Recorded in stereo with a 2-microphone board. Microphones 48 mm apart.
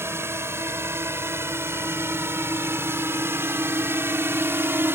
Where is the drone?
60° right (ahead or behind); by 4.9 s 55° right (ahead or behind).